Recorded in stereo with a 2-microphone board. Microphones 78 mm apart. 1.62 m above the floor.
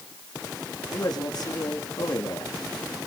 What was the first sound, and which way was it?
A man speaking, 60° left (ahead or behind).